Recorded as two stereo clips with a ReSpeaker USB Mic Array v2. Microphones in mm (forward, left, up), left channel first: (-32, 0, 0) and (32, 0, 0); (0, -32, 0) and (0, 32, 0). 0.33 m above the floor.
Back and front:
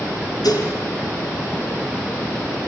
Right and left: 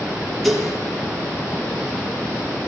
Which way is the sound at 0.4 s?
Straight behind.